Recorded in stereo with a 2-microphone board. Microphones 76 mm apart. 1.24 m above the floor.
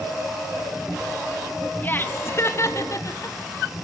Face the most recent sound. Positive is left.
turn(degrees=45)  # may be behind; listen again after turning